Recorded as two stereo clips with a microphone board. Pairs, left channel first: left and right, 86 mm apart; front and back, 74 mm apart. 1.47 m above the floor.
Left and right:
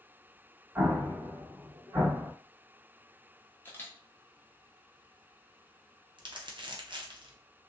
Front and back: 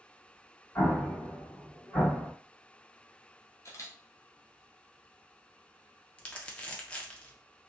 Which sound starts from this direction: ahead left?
A camera shutter, at 3.6 s.